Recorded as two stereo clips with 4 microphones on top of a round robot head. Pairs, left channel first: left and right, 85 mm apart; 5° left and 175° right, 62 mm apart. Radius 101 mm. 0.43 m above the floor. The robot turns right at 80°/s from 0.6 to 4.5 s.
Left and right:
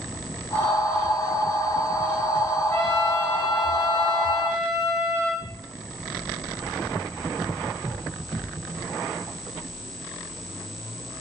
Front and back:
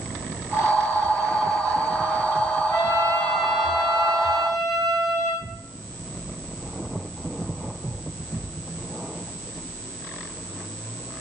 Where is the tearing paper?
135° left, 3.5 m.